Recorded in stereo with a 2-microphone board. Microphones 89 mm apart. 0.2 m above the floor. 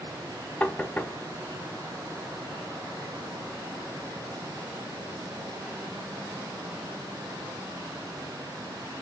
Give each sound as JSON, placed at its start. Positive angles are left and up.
{"t": 0.6, "sound": "knocking", "side_deg": 15, "distance_m": 0.7}